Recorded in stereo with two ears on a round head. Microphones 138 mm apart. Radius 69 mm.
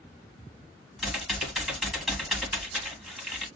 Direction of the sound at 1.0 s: 5° right (ahead or behind).